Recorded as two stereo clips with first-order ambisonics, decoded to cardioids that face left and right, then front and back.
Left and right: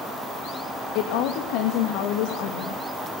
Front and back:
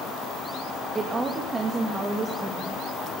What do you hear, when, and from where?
0.9 s a woman speaking: 105° left, 2.5 m